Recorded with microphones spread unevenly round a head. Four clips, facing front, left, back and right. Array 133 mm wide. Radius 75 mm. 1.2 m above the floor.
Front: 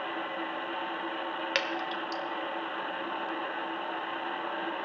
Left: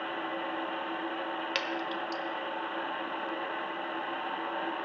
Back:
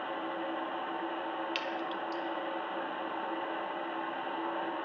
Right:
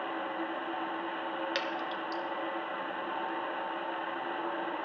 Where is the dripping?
5° right, 1.3 m.